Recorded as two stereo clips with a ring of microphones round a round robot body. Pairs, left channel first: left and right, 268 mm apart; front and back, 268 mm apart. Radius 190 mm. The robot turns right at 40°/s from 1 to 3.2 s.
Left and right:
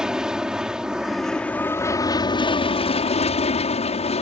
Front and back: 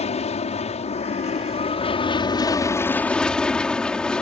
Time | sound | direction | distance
0.0 | an aircraft | 5° right | ?